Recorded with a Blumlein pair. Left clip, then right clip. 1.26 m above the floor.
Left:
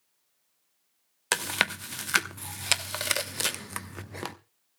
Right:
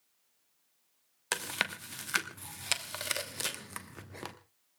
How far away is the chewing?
About 1.0 m.